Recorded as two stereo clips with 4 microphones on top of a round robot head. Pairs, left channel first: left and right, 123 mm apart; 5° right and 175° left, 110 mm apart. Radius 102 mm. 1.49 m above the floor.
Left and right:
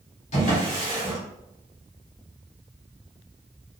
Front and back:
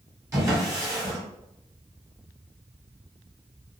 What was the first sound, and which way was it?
A drawer, 115° left.